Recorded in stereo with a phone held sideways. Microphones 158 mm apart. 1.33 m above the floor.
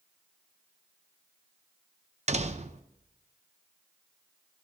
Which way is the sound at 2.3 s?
45° right (ahead or behind).